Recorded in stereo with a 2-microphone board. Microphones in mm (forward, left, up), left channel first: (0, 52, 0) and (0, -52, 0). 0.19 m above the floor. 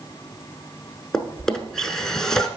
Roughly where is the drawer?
Centre.